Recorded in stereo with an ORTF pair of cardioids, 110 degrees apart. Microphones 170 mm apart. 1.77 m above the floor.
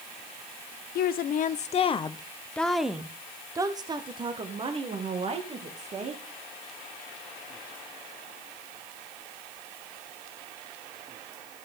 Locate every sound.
0.9 s a woman speaking: 65° left, 1.0 m; by 6.2 s 40° right, 2.5 m